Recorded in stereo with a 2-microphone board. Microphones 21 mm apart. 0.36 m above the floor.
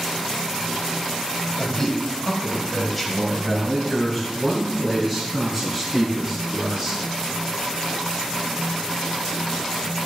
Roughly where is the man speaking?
Left.